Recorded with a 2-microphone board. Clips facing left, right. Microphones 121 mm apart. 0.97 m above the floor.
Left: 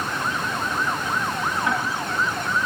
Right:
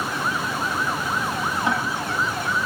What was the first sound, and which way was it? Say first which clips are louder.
Ticking: right 2 dB; 20° right (ahead or behind).